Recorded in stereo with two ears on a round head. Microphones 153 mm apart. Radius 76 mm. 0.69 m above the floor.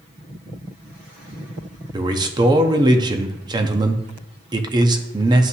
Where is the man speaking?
25° right (ahead or behind), 0.7 m.